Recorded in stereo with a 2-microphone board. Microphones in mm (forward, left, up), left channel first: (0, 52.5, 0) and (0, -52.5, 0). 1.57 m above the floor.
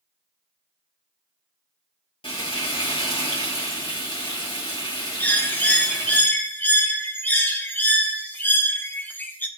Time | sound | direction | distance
2.2 | frying | 55° left (ahead or behind) | 1.9 m
5.2 | a bird | 20° left (ahead or behind) | 0.7 m